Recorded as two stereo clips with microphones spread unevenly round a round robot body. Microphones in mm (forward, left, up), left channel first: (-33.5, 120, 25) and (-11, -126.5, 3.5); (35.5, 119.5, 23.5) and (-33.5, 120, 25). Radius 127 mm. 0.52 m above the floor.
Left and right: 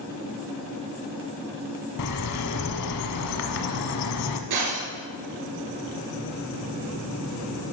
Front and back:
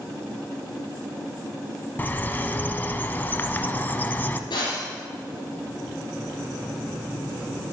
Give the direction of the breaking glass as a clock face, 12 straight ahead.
2 o'clock.